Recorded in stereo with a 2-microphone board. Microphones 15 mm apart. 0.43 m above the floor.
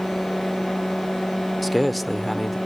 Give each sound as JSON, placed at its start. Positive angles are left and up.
{"t": 1.6, "sound": "a man speaking", "side_deg": 10, "distance_m": 1.2}